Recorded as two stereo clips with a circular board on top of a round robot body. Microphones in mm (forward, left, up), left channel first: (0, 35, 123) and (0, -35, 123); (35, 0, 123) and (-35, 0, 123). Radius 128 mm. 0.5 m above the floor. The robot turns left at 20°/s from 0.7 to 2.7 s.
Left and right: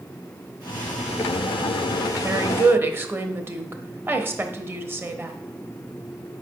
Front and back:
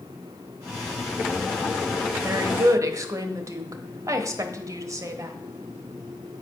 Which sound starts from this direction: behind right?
A woman speaking, at 2.2 s.